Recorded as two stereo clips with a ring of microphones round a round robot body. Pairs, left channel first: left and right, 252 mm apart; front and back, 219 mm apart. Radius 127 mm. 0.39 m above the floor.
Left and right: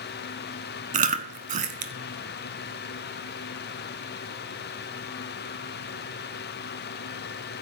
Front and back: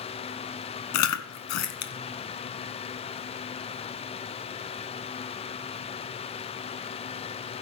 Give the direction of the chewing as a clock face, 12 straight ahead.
1 o'clock.